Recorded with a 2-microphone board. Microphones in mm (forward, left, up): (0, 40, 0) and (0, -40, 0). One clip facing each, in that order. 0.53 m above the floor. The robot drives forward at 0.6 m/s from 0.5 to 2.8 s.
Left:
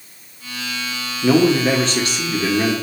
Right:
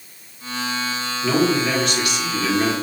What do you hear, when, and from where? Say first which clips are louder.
1.2 s a man speaking: left 5 dB; 35° left (ahead or behind), 0.8 m; by 2.7 s 25° left (ahead or behind), 1.0 m